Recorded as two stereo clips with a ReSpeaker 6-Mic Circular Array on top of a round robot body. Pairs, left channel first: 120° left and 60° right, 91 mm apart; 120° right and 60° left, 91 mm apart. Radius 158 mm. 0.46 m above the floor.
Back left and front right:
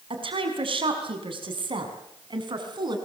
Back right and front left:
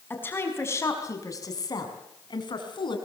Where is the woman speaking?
50° right, 6 m; by 3.0 s 95° right, 6.5 m.